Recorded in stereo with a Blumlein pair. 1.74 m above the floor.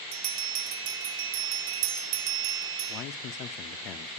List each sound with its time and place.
0.1 s a bell: 45° right, 0.8 m
2.9 s a man speaking: 35° left, 0.6 m